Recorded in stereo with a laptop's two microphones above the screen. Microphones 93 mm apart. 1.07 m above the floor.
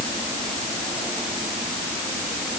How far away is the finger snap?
No finger snap in this recording.